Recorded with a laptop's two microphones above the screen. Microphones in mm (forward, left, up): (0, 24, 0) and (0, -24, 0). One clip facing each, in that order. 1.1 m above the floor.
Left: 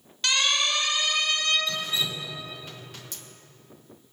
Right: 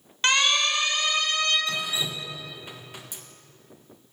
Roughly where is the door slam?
No door slam in this recording.